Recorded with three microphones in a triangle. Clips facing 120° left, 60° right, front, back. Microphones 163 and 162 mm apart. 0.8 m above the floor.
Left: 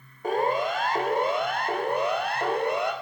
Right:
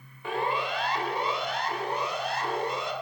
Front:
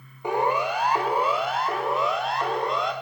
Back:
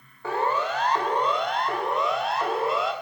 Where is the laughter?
I don't hear laughter.